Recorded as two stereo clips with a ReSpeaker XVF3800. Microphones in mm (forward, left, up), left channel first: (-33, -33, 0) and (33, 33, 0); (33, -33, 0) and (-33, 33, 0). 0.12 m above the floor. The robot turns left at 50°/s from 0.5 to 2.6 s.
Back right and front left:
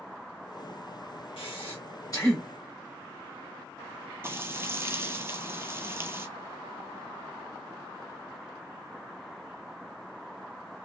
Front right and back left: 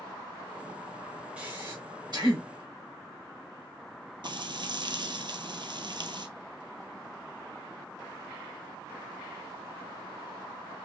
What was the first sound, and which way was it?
Breathing, 145° right.